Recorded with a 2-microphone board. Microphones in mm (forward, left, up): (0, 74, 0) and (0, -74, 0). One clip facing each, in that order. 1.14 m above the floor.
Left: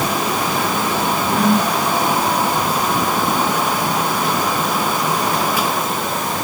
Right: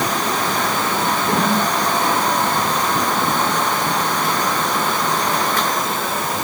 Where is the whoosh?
70° right (ahead or behind), 3 m.